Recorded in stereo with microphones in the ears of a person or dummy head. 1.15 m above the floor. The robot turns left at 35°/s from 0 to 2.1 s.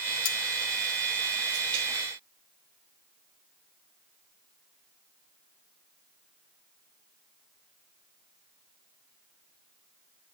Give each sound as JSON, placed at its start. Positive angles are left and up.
{"t": 0.2, "sound": "cutlery clinking", "side_deg": 75, "distance_m": 3.0}